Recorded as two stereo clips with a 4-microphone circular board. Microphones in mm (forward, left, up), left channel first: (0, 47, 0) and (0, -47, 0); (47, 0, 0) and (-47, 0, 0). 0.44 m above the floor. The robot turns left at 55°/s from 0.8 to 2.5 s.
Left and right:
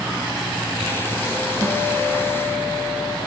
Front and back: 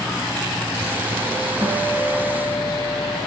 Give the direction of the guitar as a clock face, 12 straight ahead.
2 o'clock.